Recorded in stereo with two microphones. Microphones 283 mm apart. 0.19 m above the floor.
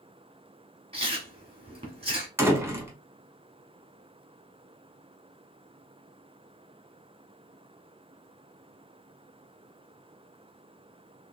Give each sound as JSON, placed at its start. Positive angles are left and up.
{"t": 0.9, "sound": "chewing", "side_deg": -20, "distance_m": 1.9}
{"t": 2.4, "sound": "a door slam", "side_deg": -10, "distance_m": 0.9}